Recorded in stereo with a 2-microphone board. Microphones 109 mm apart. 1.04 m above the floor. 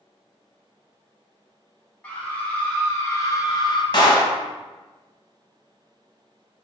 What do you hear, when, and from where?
2.0 s a scream: 15° left (ahead or behind), 1.3 m; by 3.8 s 45° left (ahead or behind), 0.5 m
3.9 s a clap: 45° left (ahead or behind), 0.7 m